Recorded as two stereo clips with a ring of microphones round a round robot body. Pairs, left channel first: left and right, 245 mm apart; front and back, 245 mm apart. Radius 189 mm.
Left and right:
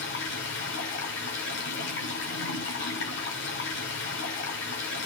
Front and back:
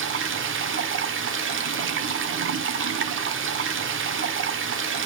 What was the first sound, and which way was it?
Running water, 140° left.